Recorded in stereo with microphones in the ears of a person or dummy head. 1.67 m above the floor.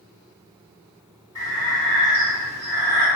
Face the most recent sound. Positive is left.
turn(degrees=15)  # may be behind; listen again after turning